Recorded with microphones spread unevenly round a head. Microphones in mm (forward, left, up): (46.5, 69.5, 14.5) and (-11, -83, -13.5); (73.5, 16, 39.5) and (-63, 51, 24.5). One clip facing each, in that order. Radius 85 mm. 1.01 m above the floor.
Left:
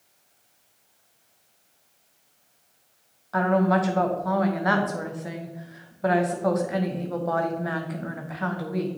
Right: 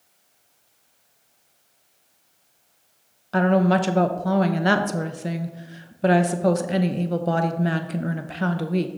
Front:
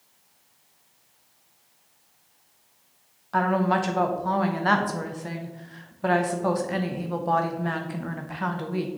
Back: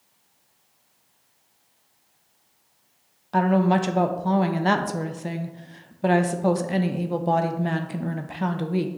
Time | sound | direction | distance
3.3 | a woman speaking | 140° right | 0.6 m